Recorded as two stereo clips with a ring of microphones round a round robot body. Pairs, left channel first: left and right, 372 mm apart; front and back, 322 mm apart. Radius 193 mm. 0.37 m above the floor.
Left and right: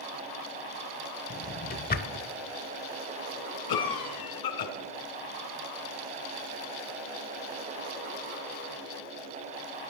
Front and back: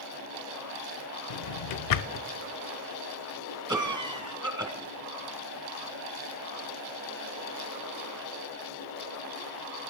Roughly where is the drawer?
Ahead left.